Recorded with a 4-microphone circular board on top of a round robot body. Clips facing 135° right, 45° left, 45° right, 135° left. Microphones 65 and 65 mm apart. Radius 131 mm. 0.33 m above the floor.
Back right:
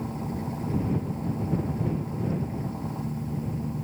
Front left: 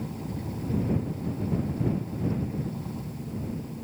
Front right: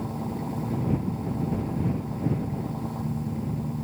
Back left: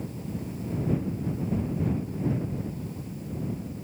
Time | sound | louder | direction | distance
0.0 | an engine running | back right 3 dB, front right 4 dB | 75° right | ?